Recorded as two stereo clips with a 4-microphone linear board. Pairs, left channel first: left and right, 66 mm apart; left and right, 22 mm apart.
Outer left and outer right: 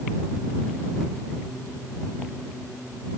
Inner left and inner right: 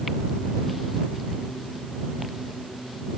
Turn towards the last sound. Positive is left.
No sound to turn to.